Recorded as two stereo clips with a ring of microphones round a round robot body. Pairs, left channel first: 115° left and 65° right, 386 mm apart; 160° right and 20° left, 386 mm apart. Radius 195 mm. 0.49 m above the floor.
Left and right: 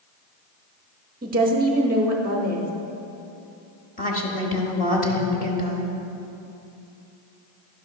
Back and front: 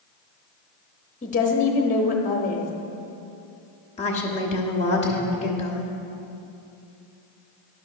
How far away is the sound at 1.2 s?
About 0.7 m.